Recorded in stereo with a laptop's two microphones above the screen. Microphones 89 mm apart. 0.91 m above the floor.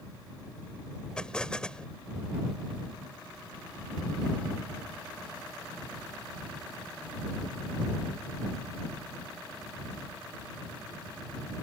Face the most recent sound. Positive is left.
turn(degrees=10)  # may be behind; listen again after turning